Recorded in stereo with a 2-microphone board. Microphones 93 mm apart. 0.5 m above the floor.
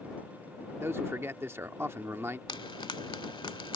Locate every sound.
0.8 s a man speaking: 25° right (ahead or behind)
2.5 s frying: 60° left (ahead or behind)